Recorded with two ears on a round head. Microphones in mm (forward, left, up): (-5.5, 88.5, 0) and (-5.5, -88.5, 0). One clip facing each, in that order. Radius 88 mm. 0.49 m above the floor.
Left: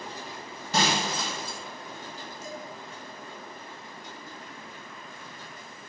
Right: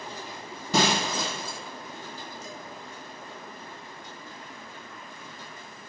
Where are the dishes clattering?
45° left (ahead or behind), 2.5 m.